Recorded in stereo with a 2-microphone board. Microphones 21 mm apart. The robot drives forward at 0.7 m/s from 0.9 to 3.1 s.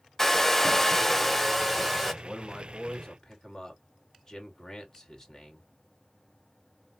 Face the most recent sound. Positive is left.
turn(degrees=30)  # may be behind; listen again after turning